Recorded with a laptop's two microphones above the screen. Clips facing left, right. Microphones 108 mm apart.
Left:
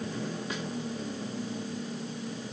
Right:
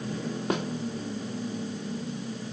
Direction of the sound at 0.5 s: 55° right (ahead or behind).